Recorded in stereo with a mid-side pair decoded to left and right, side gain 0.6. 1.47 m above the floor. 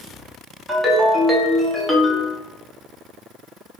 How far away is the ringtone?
About 1.0 m.